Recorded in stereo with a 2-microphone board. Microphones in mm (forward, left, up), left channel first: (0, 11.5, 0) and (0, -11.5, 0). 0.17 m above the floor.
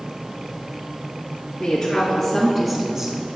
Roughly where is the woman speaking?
Left.